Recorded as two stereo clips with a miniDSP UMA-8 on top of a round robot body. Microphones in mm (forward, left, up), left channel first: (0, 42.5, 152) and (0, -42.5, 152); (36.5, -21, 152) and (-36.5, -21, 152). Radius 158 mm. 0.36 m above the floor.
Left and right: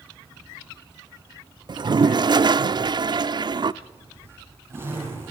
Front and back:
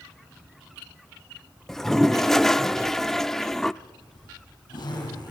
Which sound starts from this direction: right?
A toilet flushing, at 1.7 s.